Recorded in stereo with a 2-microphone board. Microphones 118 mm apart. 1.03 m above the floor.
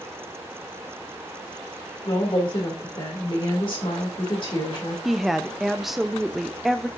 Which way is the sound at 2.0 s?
45° left (ahead or behind).